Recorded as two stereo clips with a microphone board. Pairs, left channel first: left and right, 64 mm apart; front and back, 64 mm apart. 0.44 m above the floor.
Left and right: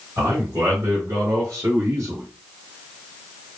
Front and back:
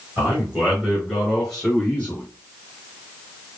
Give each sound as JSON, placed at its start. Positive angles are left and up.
{"t": 0.2, "sound": "a man speaking", "azimuth_deg": -115, "distance_m": 3.0}